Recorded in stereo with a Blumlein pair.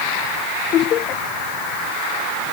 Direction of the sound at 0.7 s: 30° left.